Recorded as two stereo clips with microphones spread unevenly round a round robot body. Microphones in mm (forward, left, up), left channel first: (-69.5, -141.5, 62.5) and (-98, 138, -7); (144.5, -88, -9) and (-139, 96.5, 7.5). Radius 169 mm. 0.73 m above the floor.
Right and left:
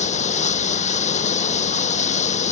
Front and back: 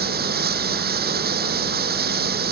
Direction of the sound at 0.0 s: 150° right.